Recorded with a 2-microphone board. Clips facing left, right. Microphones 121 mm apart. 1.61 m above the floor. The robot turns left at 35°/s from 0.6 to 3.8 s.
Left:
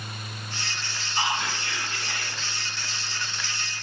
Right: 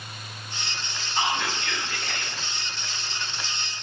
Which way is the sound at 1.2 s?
65° right.